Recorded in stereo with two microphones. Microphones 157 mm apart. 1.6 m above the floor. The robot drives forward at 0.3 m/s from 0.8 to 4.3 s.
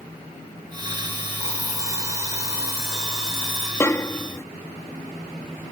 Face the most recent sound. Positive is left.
turn(degrees=20)  # may be behind; listen again after turning